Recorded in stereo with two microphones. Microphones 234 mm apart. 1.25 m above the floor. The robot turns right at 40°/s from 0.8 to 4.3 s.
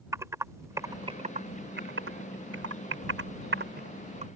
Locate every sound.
0.1 s typing on a keyboard: 15° right (ahead or behind); by 4.3 s 30° right (ahead or behind)